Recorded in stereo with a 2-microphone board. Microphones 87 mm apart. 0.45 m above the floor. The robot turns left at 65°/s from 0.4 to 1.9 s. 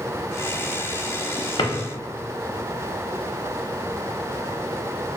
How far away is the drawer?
About 0.5 m.